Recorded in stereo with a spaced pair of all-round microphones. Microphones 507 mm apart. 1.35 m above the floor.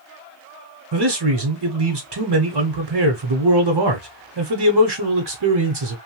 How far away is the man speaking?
About 0.7 m.